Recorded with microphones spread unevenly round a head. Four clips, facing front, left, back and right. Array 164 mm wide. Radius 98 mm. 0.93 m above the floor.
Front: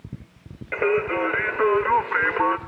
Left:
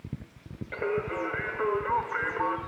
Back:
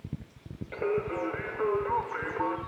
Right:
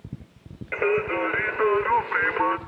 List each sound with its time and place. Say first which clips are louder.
0.7 s singing: right 6 dB, front 8 dB; straight ahead, 1.3 m